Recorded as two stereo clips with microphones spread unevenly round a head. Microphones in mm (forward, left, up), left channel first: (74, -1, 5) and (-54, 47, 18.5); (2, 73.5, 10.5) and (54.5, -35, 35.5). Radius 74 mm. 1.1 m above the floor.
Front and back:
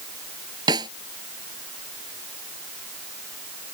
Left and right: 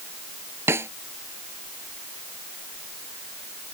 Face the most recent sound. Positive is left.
turn(degrees=-135)